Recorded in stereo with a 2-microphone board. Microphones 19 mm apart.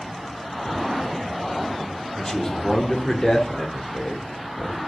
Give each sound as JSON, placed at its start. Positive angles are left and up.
{"t": 2.1, "sound": "a man speaking", "side_deg": 20, "distance_m": 1.4}